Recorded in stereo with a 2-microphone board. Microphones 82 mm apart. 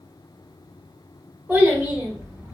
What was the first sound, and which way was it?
A child speaking, 20° right (ahead or behind).